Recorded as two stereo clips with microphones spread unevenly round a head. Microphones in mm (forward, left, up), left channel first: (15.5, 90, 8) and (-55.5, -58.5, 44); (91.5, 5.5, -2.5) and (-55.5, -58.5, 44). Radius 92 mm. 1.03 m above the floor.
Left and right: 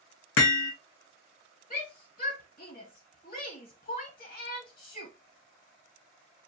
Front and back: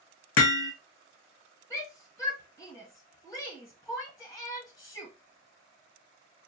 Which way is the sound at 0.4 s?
45° left.